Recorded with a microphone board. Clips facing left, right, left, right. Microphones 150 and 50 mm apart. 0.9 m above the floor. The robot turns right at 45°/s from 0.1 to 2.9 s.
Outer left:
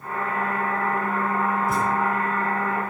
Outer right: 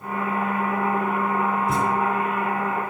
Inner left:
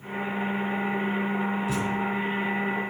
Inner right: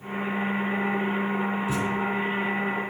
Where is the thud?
25° right (ahead or behind), 4.5 m; by 1.9 s 35° right (ahead or behind), 4.5 m.